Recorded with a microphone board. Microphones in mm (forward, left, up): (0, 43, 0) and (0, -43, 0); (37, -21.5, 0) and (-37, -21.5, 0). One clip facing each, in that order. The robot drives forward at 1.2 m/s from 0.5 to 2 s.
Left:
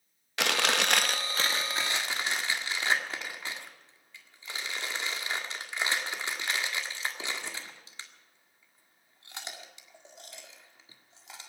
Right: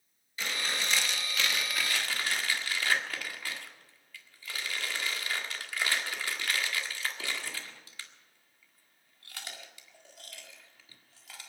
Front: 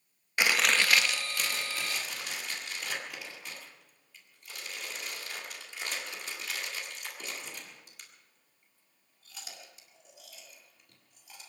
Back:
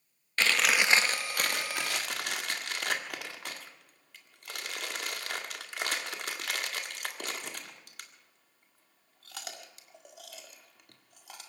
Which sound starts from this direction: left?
Chewing, at 0.4 s.